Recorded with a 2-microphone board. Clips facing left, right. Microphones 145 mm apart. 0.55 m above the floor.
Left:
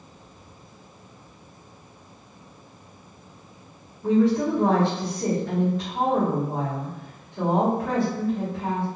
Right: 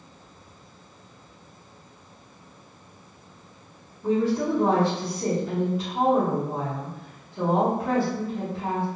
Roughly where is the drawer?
No drawer in this recording.